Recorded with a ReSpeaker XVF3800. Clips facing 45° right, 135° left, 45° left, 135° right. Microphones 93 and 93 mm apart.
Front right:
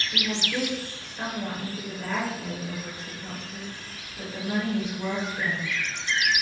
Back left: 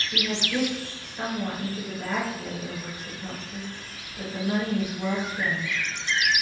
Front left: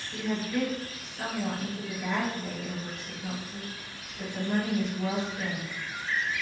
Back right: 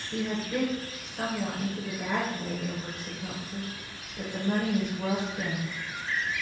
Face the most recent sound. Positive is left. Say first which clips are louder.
# back left 2 dB, even
turn(degrees=-145)